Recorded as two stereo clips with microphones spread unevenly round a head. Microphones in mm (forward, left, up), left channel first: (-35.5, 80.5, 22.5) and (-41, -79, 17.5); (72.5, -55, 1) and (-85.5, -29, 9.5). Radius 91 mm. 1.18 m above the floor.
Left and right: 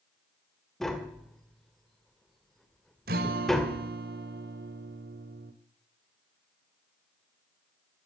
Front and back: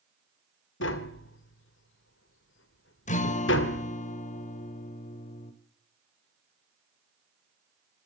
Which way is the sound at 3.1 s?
50° right.